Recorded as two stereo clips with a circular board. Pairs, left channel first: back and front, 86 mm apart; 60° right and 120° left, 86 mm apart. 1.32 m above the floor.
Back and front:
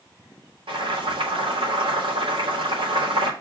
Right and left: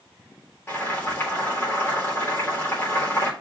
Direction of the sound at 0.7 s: 5° left.